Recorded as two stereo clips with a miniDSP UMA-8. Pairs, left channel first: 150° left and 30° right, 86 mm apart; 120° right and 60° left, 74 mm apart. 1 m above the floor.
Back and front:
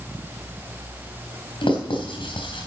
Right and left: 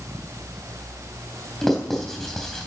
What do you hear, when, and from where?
1.6 s writing: 155° left, 3.5 m